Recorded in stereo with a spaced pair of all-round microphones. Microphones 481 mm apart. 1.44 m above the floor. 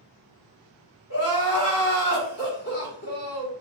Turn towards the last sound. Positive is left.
turn(degrees=30)  # may be behind; listen again after turning